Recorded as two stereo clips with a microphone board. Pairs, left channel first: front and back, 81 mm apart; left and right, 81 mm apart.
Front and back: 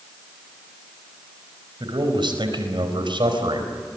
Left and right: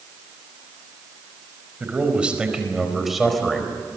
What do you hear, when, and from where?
1.8 s a man speaking: 160° right, 4.5 m; by 3.7 s 175° left, 4 m